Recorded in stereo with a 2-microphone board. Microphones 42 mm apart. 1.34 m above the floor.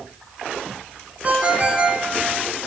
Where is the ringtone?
35° right (ahead or behind), 1.0 m.